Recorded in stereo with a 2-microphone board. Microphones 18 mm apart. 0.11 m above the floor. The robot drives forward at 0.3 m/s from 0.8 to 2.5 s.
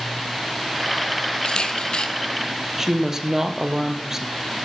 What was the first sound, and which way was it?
A camera shutter, 55° left (ahead or behind).